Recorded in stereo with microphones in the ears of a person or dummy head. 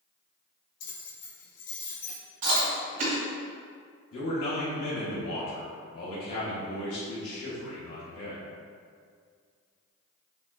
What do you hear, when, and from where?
0.8 s keys jangling: 50° left (ahead or behind), 1.9 m; by 2.2 s 45° left (ahead or behind), 1.2 m
2.4 s chewing: 60° right (ahead or behind), 1.8 m
4.1 s a man speaking: 70° left (ahead or behind), 1.2 m